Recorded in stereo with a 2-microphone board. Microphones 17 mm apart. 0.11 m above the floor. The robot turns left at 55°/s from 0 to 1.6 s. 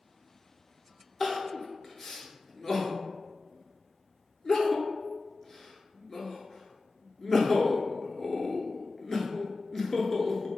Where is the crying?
5° left (ahead or behind), 0.5 m; by 10.5 s 15° left (ahead or behind), 0.5 m.